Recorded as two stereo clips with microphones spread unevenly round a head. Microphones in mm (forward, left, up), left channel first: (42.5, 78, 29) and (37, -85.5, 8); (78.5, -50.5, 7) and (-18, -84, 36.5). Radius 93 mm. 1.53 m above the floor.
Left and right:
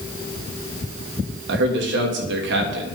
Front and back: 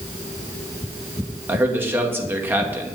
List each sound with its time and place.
1.5 s a man speaking: 90° right, 3 m